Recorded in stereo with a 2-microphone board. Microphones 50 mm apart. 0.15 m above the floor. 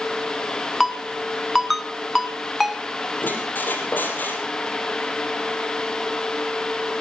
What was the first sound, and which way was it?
A ringtone, 5° right (ahead or behind).